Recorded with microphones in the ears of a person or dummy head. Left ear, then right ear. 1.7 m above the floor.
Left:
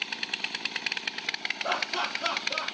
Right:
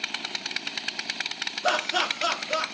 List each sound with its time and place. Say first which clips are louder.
1.6 s laughter: right 6 dB; 85° right, 1.8 m